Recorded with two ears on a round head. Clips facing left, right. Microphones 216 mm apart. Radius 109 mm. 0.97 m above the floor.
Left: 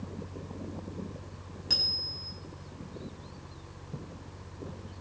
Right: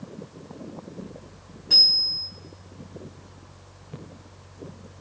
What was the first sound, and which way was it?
A bicycle bell, 50° left (ahead or behind).